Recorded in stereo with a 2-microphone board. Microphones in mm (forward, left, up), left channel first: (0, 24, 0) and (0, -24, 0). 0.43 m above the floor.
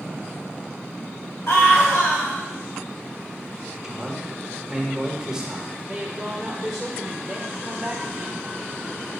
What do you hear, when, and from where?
1.5 s a scream: 65° left (ahead or behind), 3 m
3.8 s a man speaking: 15° right (ahead or behind), 1.2 m
5.9 s a woman speaking: centre (ahead or behind), 1.0 m